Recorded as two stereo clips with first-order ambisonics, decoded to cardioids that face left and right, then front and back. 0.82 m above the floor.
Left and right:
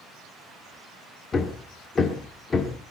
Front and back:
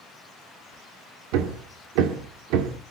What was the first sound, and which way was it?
Hammering, 160° left.